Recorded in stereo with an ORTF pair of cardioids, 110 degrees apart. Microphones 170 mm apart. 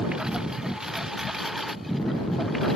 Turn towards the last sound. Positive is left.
turn(degrees=0)